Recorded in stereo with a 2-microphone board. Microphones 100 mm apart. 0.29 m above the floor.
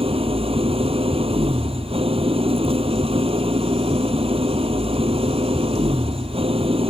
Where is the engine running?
65° right (ahead or behind).